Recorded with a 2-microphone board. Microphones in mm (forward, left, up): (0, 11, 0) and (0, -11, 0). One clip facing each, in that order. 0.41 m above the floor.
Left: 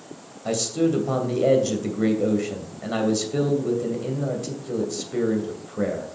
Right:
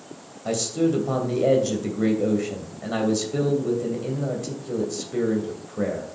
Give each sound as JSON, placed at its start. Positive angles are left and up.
{"t": 0.5, "sound": "a man speaking", "side_deg": 10, "distance_m": 2.0}